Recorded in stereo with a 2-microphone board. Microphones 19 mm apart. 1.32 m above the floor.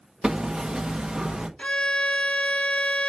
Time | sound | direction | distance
0.2 | hammering | 50° right (ahead or behind) | 1.3 m
1.6 | a violin | 65° left (ahead or behind) | 1.0 m